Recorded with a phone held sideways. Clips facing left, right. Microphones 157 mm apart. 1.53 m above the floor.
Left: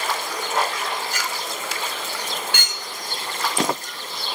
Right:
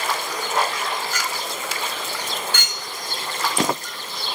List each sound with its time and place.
1.1 s a clink: 60° left (ahead or behind), 1.5 m